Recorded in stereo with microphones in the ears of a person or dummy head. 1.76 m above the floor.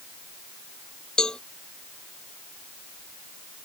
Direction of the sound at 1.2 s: 5° left (ahead or behind).